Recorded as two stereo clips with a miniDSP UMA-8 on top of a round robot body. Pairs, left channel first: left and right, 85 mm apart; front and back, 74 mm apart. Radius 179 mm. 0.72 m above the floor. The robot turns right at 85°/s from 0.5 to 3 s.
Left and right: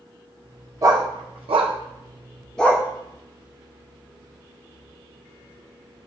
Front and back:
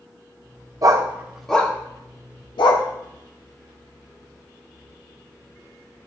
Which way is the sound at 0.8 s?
145° right.